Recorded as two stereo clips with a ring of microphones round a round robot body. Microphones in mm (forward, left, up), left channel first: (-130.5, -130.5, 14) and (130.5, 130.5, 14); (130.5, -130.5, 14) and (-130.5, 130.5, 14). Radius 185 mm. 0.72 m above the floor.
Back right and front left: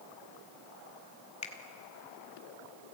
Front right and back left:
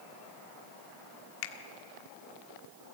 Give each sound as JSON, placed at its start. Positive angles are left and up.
{"t": 1.4, "sound": "a finger snap", "azimuth_deg": -65, "distance_m": 1.7}